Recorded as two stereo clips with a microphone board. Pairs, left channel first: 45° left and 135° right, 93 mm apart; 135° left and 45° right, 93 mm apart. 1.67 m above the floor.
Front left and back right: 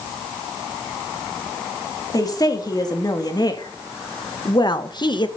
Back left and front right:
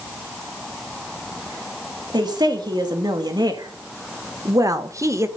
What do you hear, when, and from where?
2.1 s a woman speaking: 5° right, 3 m; by 5.3 s 15° left, 1.3 m